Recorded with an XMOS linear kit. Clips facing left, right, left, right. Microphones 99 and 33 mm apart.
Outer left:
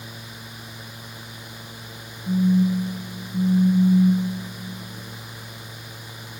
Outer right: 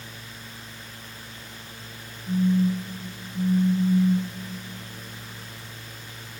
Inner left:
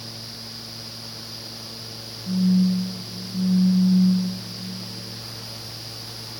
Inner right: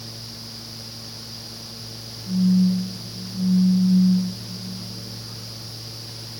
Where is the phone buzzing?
75° left (ahead or behind), 0.6 m.